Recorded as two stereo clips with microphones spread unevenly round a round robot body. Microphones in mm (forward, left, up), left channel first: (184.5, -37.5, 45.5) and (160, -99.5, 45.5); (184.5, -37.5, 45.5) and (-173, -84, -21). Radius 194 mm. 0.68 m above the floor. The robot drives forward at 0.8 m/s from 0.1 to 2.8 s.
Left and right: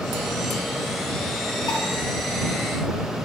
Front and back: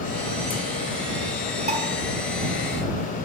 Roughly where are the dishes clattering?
Behind left.